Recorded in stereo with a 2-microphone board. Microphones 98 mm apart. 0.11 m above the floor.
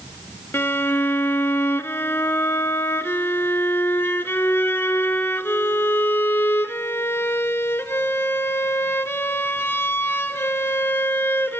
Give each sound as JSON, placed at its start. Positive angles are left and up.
{"t": 0.5, "sound": "a violin", "side_deg": 25, "distance_m": 0.5}